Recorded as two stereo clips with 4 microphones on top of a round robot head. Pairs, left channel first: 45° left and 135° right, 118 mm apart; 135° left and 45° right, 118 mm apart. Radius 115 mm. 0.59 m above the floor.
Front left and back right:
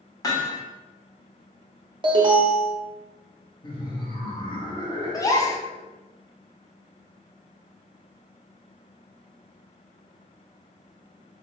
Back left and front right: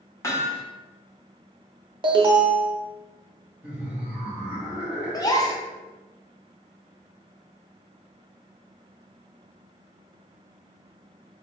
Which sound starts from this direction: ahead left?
Laughter, at 3.6 s.